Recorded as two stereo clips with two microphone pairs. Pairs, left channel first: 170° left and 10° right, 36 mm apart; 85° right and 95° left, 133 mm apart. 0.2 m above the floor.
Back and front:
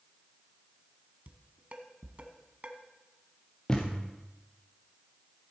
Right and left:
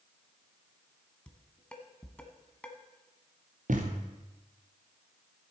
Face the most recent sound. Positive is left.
turn(degrees=105)